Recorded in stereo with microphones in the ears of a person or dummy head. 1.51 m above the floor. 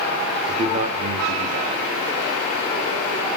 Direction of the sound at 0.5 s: 30° right (ahead or behind).